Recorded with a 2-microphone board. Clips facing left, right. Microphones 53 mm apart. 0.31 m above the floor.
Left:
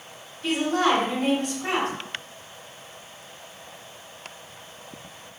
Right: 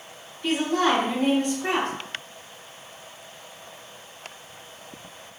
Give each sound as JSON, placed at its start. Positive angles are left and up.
{"t": 0.4, "sound": "a woman speaking", "side_deg": 0, "distance_m": 2.0}